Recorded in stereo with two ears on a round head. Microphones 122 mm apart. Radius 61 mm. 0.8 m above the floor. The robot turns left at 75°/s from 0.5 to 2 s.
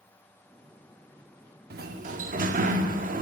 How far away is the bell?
I don't hear a bell.